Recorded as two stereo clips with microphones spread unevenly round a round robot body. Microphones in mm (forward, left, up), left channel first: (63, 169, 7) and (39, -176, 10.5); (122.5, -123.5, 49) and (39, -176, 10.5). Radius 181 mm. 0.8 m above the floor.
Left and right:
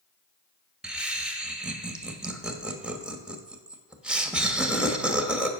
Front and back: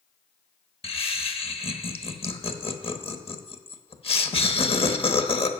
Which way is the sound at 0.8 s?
5° right.